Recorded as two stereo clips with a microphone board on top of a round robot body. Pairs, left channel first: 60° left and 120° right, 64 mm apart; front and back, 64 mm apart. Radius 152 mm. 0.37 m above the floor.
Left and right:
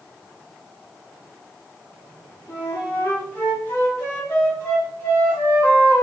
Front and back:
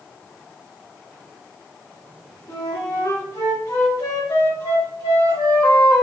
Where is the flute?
Straight ahead, 2.0 m.